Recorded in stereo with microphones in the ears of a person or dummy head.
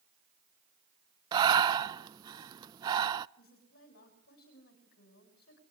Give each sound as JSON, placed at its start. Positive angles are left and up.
{"t": 1.3, "sound": "breathing", "side_deg": -25, "distance_m": 0.5}
{"t": 3.4, "sound": "a woman speaking", "side_deg": 55, "distance_m": 5.5}